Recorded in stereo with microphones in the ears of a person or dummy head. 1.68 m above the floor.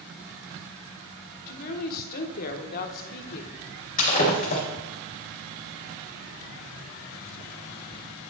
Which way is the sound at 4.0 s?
40° left (ahead or behind).